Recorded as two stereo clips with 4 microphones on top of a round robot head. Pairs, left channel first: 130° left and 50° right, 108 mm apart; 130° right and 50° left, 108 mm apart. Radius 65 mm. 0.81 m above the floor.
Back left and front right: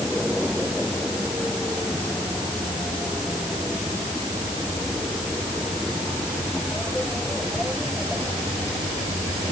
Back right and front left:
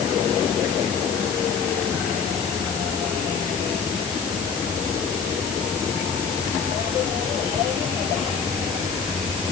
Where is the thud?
I don't hear a thud.